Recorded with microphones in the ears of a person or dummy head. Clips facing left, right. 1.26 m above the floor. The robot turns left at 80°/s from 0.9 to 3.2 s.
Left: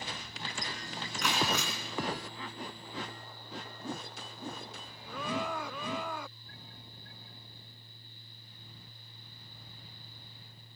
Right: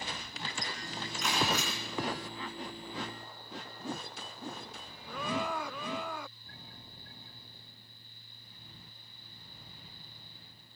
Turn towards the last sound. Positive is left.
turn(degrees=-30)